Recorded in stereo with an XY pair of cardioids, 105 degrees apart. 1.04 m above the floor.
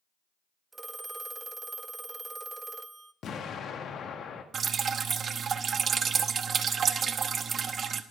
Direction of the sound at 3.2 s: 55° left.